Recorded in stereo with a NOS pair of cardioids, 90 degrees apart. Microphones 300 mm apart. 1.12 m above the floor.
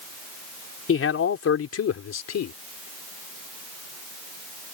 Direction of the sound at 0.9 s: 45° left.